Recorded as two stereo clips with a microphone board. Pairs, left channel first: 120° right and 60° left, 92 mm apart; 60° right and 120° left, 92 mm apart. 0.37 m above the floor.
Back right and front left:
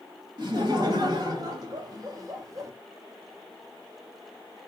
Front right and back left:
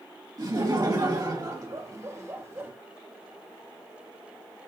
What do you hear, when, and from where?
0.4 s laughter: 85° left, 2.5 m; by 2.7 s 75° left, 1.6 m